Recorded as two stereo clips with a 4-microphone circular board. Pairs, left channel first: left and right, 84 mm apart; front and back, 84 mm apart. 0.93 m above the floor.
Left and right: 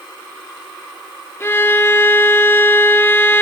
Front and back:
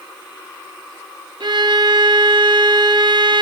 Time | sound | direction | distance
1.4 | a violin | 150° left | 1.1 m